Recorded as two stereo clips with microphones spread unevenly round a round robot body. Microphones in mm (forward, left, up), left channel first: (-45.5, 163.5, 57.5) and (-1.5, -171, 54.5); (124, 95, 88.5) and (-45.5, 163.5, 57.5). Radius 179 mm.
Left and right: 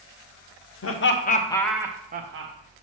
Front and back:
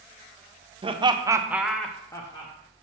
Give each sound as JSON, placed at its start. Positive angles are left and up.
{"t": 0.8, "sound": "laughter", "azimuth_deg": 125, "distance_m": 1.0}